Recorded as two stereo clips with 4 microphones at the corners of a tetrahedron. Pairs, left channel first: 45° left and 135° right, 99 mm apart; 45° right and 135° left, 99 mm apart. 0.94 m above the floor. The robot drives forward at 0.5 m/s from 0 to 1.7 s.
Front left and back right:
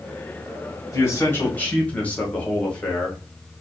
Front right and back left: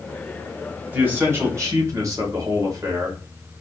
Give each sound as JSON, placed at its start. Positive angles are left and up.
{"t": 0.9, "sound": "a man speaking", "azimuth_deg": 75, "distance_m": 1.0}